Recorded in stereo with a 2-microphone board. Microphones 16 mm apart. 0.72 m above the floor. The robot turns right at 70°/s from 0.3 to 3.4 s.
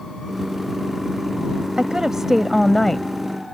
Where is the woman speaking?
60° right; by 3.0 s 30° left.